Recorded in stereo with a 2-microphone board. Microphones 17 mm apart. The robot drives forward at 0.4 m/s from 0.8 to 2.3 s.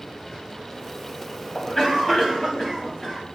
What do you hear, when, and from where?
1.6 s a cough: 30° left (ahead or behind), 2.5 m; by 3.2 s 25° left (ahead or behind), 3 m